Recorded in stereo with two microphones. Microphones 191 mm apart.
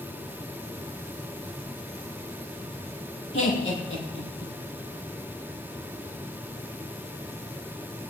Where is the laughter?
70° left (ahead or behind), 5 m; by 4.5 s 75° left (ahead or behind), 5 m.